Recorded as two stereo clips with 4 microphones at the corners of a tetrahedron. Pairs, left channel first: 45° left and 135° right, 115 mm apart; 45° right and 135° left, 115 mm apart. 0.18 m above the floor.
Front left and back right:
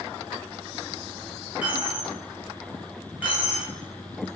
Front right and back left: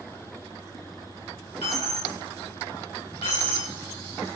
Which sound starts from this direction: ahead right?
A dropped coin, at 1.6 s.